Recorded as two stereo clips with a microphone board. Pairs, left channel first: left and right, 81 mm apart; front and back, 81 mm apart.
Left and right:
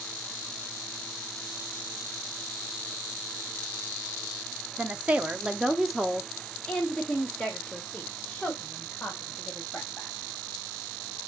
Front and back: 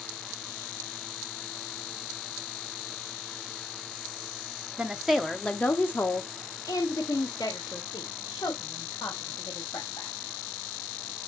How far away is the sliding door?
I don't hear a sliding door.